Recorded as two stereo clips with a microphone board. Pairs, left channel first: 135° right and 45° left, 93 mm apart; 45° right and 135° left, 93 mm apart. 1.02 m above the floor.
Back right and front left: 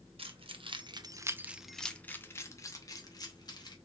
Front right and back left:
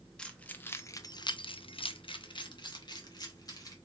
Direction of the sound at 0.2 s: 35° left.